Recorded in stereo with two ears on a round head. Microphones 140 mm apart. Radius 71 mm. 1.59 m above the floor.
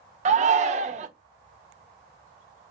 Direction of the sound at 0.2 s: 50° right (ahead or behind).